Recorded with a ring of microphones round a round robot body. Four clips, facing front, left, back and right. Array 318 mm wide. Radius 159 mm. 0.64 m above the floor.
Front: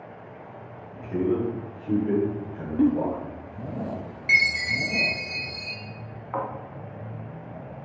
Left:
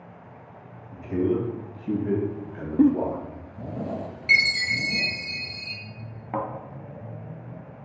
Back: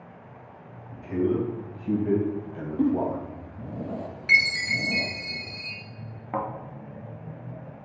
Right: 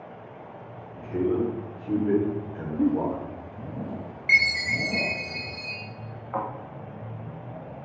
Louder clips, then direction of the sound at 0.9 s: Left 1 dB, even; 115° left.